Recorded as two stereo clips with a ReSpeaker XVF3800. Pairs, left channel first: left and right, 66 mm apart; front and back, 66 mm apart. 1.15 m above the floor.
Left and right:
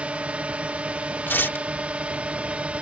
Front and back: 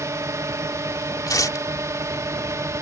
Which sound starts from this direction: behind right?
A drone, at 0.0 s.